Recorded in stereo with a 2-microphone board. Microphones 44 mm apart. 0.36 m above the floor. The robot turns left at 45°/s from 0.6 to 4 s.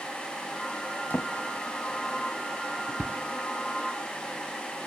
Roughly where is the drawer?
Left.